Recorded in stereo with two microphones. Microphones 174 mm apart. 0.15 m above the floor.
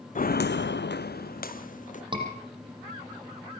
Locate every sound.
0.1 s footsteps: 50° left (ahead or behind), 0.6 m; by 2.0 s 45° left (ahead or behind), 1.4 m
2.1 s a scream: 30° right (ahead or behind), 7.5 m